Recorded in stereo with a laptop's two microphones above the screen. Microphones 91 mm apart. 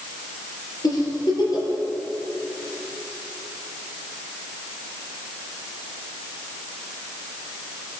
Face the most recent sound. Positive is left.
turn(degrees=45)  # may be behind; listen again after turning